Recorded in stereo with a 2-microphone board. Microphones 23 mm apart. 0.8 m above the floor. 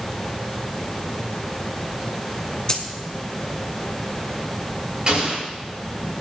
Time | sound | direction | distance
2.7 | a dropped coin | 30° left (ahead or behind) | 1.6 m
5.1 | an explosion | 35° right (ahead or behind) | 6.5 m